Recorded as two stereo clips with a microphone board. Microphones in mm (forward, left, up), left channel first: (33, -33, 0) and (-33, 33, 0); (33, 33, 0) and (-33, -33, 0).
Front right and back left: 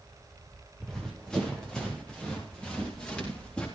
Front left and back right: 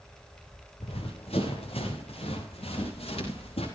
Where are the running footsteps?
40° left, 5.5 m; by 3.7 s 35° left, 9.5 m.